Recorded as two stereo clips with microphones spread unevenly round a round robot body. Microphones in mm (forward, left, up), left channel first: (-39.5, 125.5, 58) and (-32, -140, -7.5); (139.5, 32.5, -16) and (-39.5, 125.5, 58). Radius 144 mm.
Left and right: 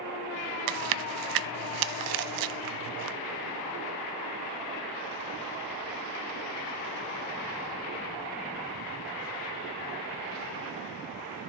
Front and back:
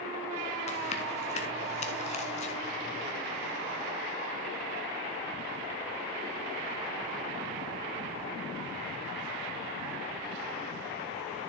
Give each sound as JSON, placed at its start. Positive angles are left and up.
{"t": 0.7, "sound": "chewing", "azimuth_deg": -100, "distance_m": 0.5}